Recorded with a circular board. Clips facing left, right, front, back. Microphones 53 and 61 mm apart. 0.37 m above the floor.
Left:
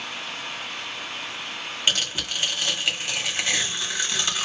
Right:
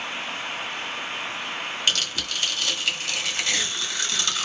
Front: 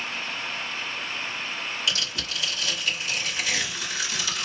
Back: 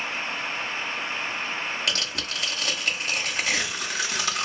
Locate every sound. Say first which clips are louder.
1.9 s tearing paper: left 2 dB, back 1 dB; 155° left, 1.1 m